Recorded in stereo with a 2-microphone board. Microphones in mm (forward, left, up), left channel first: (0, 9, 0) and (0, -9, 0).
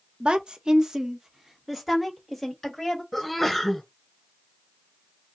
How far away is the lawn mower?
No lawn mower in this recording.